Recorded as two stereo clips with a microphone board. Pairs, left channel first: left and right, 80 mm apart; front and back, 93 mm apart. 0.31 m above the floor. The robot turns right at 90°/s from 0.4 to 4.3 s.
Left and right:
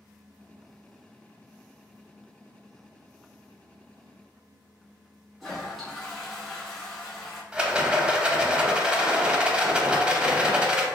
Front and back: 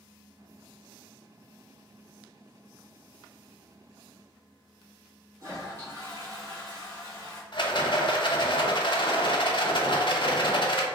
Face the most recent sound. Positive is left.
turn(degrees=-15)